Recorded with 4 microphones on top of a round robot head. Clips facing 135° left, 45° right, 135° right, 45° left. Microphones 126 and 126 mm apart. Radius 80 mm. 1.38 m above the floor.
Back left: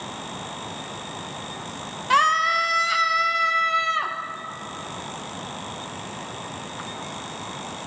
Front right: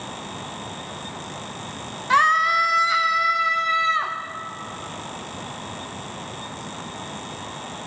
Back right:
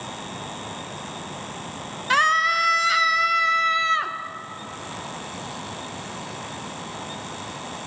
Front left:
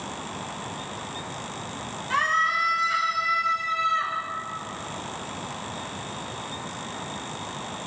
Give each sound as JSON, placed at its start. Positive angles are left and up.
{"t": 2.1, "sound": "a scream", "azimuth_deg": -150, "distance_m": 0.8}